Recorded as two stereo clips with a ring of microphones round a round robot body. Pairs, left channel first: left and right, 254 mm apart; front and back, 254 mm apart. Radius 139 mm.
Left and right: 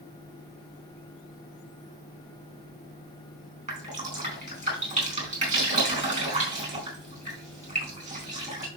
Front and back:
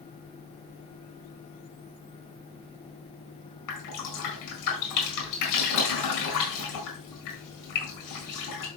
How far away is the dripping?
About 4 m.